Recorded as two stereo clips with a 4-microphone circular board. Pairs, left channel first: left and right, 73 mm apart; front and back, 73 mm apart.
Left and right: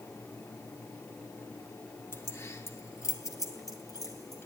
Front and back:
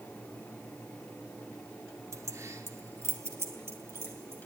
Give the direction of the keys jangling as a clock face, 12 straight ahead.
7 o'clock.